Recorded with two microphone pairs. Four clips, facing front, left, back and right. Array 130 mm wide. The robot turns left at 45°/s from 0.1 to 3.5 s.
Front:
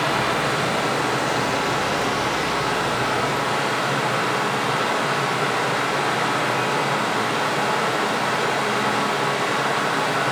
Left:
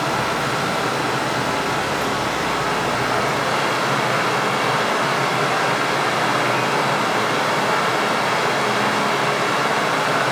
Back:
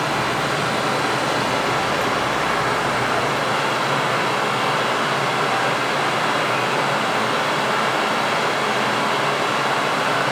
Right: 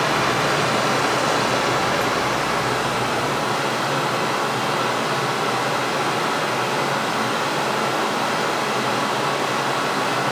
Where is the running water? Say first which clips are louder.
Right 1 dB, even; 70° right, 1.1 m; by 10.3 s 135° left, 1.1 m.